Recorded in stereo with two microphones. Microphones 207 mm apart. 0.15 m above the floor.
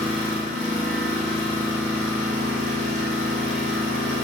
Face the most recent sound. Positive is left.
turn(degrees=-35)  # may be behind; listen again after turning